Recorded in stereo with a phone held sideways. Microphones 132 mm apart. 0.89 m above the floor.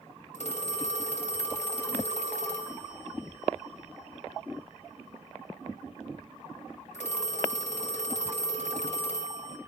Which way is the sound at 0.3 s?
65° left (ahead or behind).